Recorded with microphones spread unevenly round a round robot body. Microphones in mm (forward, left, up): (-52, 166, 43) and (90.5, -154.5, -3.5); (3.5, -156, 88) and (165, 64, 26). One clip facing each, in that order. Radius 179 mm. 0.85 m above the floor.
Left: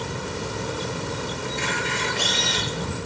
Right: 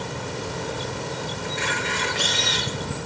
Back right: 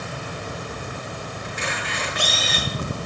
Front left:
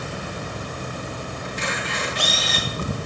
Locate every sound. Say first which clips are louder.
1.4 s a camera shutter: even, front left 2 dB; 100° right, 7 m